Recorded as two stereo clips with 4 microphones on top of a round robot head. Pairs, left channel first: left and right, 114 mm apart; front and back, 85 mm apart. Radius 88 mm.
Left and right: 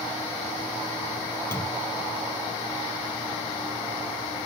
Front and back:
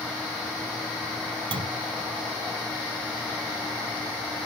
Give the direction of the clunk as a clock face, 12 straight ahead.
6 o'clock.